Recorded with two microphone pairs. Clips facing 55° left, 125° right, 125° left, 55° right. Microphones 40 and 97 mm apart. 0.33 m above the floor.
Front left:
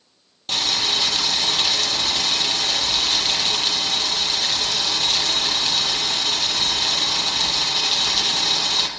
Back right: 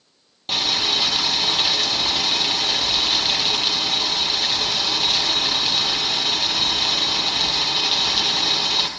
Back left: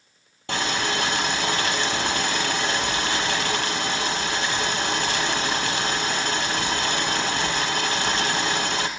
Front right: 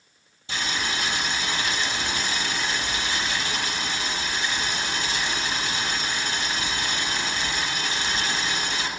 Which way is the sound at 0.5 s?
155° left.